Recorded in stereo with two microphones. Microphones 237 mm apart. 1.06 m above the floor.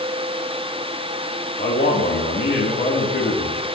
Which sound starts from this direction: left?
A man speaking, at 1.6 s.